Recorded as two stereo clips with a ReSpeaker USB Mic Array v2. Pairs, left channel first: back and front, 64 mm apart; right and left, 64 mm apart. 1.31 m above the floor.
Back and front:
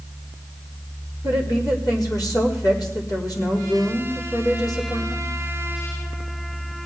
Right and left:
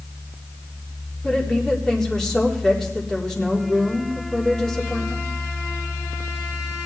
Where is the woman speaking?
170° right, 4 m.